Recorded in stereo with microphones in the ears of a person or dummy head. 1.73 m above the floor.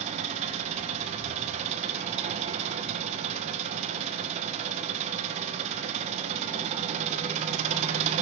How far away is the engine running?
About 1.3 m.